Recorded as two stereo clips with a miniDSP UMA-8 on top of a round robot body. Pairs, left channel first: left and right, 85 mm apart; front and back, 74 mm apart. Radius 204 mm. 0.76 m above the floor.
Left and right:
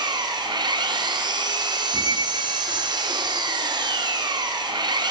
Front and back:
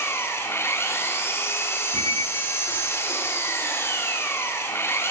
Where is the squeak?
45° right, 1.2 m.